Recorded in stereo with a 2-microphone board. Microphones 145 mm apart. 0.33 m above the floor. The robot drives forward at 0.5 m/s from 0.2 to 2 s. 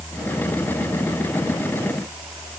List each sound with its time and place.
Only background noise.